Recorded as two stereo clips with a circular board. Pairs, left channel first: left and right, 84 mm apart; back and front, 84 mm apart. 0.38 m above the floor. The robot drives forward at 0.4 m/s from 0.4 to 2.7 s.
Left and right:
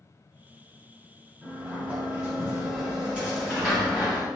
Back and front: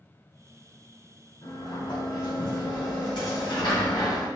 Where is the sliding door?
165° right, 1.9 m.